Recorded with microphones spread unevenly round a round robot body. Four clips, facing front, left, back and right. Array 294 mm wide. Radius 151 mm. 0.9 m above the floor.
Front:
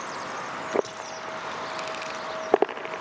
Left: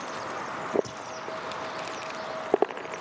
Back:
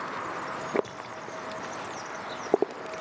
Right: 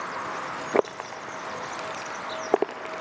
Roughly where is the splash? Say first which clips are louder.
Right 1 dB, front 3 dB; left.